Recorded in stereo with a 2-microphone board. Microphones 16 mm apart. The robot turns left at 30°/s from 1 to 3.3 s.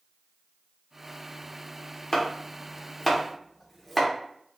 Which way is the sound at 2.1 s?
30° left (ahead or behind).